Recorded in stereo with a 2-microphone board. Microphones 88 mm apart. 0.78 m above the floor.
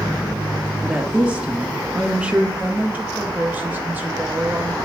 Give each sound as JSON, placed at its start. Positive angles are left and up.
{"t": 0.8, "sound": "a woman speaking", "side_deg": -10, "distance_m": 0.7}
{"t": 2.6, "sound": "a woman speaking", "side_deg": -20, "distance_m": 0.7}